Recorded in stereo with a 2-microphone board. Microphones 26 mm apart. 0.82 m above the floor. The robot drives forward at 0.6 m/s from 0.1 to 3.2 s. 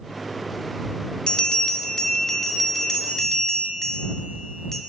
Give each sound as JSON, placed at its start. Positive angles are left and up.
{"t": 1.3, "sound": "a bell", "side_deg": 35, "distance_m": 0.7}